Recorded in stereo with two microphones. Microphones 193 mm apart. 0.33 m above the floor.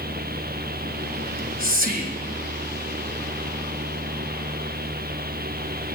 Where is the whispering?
50° right (ahead or behind), 1.9 m.